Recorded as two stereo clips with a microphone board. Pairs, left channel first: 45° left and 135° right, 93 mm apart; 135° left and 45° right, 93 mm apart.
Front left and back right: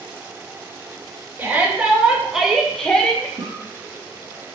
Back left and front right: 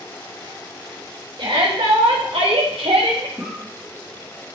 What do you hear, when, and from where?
1.4 s a shout: 65° right, 3 m; by 3.3 s 30° right, 1.9 m
3.4 s a cough: 115° right, 1.5 m